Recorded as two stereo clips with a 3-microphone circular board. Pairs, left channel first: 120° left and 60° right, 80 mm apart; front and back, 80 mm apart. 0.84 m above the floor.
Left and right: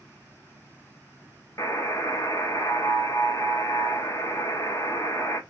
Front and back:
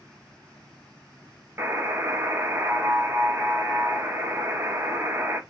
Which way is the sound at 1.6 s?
140° left.